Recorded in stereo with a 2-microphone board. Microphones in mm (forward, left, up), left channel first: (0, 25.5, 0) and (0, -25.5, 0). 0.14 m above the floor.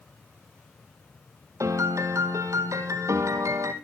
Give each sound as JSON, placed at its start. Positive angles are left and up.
{"t": 1.6, "sound": "a piano", "side_deg": -80, "distance_m": 1.8}